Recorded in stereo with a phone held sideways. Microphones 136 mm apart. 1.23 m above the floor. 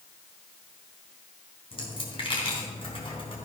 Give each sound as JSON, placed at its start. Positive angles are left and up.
{"t": 1.7, "sound": "a dropped coin", "side_deg": 40, "distance_m": 3.5}